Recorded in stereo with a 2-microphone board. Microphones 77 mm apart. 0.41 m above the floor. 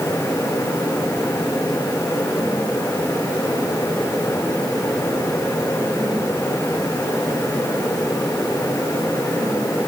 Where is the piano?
No piano in this recording.